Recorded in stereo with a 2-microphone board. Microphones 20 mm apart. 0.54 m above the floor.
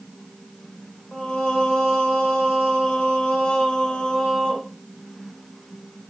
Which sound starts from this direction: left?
Singing, at 1.1 s.